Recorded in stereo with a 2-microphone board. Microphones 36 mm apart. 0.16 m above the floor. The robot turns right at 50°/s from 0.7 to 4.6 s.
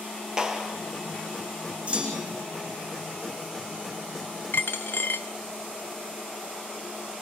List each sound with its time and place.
0.4 s a clap: 20° right (ahead or behind), 3 m; by 0.8 s 25° right (ahead or behind), 3 m
1.9 s a clunk: 35° right (ahead or behind), 6 m; by 2.4 s 10° right (ahead or behind), 6 m
4.5 s a dropped coin: 70° left (ahead or behind), 0.8 m; by 5.3 s 75° left (ahead or behind), 0.8 m